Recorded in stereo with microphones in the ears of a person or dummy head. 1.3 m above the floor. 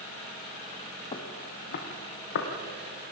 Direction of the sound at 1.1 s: 25° left (ahead or behind).